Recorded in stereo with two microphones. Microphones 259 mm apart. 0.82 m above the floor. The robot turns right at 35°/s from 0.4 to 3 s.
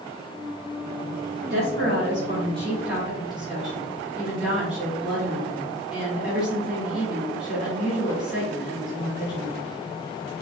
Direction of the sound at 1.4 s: 60° right.